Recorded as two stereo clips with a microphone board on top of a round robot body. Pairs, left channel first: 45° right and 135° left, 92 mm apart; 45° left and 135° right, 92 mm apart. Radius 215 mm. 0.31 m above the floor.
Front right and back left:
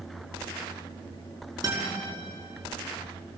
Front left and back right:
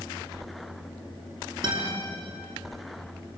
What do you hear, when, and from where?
1.6 s a guitar: 175° right, 6 m